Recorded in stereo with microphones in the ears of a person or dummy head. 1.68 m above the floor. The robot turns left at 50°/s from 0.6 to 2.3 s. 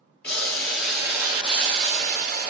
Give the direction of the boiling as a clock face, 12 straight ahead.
12 o'clock.